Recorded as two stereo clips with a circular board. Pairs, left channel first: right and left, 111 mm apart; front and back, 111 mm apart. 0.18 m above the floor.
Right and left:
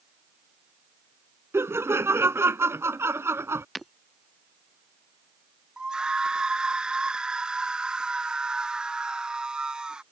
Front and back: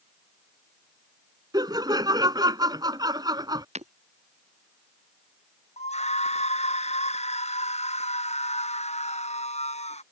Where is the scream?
5° left.